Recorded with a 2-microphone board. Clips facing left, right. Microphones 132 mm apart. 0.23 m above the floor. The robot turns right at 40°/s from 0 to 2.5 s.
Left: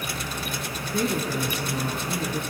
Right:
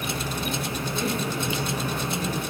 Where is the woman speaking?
105° left, 4 m; by 2.4 s 165° left, 4 m.